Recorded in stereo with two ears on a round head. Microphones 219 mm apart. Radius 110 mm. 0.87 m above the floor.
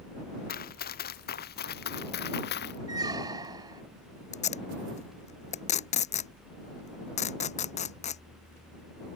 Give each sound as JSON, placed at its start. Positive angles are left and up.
{"t": 0.5, "sound": "running footsteps", "side_deg": 40}
{"t": 2.9, "sound": "a squeak", "side_deg": -15}
{"t": 4.3, "sound": "tape being pulled", "side_deg": 30}